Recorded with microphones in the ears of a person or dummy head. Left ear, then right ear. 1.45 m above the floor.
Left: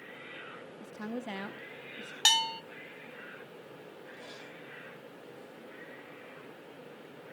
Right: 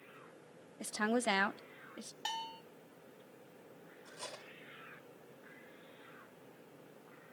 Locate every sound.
0.8 s a woman speaking: 65° right (ahead or behind), 0.7 m; by 2.1 s 40° right (ahead or behind), 1.0 m
2.2 s a bell: 45° left (ahead or behind), 0.6 m
4.1 s cutlery clinking: 60° right (ahead or behind), 3.5 m